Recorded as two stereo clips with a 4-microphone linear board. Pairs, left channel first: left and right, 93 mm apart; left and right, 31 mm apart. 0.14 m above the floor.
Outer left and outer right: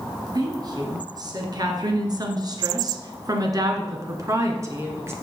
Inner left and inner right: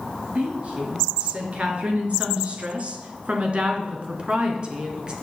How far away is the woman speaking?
About 3 m.